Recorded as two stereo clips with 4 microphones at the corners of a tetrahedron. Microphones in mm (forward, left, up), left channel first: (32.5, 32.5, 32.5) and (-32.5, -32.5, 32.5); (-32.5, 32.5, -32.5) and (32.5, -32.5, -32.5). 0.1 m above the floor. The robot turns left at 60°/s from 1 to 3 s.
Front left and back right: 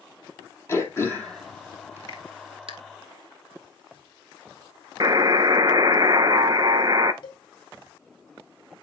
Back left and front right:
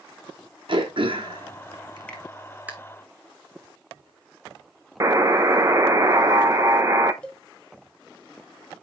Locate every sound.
0.7 s throat clearing: 15° right, 1.5 m; by 2.7 s 120° right, 1.5 m
2.1 s a finger snap: 65° left, 1.7 m; by 2.2 s 55° left, 1.7 m
5.0 s a buzzer: 95° right, 0.6 m
7.2 s a cowbell: 60° left, 1.2 m